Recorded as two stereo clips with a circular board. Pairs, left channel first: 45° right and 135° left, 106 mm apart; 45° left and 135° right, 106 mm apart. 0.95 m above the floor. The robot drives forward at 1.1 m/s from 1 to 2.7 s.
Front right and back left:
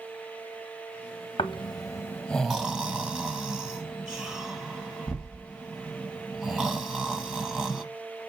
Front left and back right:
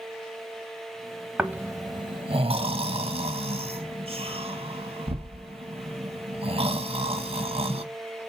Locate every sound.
1.4 s snoring: 55° right, 1.0 m; by 7.8 s 145° right, 1.3 m